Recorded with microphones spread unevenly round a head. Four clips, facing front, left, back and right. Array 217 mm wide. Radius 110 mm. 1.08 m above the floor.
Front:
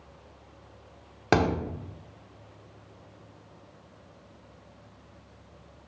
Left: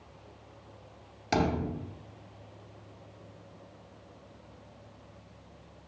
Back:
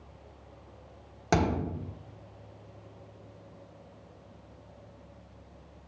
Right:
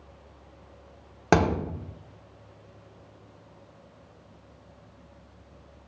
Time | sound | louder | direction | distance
1.3 | a thud | right 6 dB, front 3 dB | 60° right | 1.3 m